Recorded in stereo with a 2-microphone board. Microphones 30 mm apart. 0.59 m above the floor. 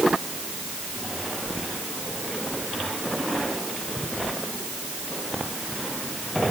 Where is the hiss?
No hiss in this recording.